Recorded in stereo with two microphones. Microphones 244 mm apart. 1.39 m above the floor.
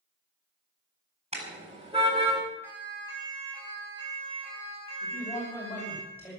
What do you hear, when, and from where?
1.3 s a car horn: 25° right (ahead or behind), 5 m
2.6 s a siren: 10° right (ahead or behind), 7.5 m; by 6.0 s 30° right (ahead or behind), 8 m
5.0 s a man speaking: 10° left (ahead or behind), 6.5 m